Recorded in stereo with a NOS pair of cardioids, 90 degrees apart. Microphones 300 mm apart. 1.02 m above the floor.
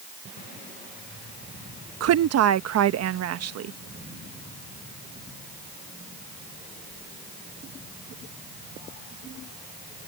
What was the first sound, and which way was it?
A woman speaking, 60° right.